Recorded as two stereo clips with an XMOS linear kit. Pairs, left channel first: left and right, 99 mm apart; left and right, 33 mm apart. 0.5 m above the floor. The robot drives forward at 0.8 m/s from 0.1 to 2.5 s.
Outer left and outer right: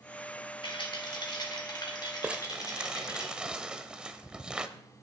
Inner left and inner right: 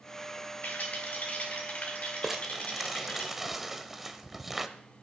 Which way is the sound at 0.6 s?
60° left (ahead or behind).